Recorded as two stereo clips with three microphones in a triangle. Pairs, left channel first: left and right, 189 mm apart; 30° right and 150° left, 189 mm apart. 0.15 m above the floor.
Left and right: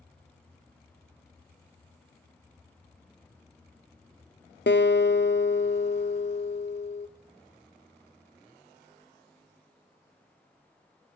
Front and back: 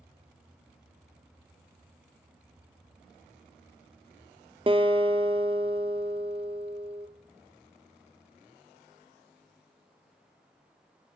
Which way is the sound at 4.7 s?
90° left.